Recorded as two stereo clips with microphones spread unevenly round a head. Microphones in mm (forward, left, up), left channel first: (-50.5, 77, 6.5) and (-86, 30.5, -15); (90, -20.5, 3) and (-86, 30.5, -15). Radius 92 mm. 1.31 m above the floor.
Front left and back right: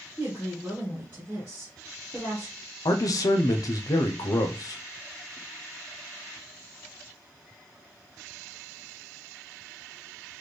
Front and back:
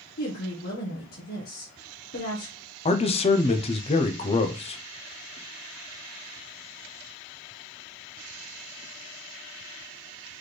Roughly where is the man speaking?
Ahead left.